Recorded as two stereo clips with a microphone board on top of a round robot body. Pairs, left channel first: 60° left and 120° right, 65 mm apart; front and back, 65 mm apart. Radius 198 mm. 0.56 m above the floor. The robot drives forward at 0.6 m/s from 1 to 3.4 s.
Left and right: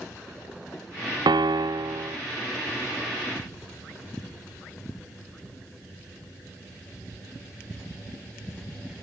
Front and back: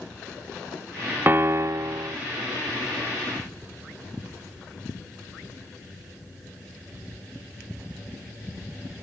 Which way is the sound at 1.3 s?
120° right.